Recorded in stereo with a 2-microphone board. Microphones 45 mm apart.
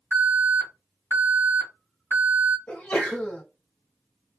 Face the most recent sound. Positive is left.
turn(degrees=30)  # may be behind; listen again after turning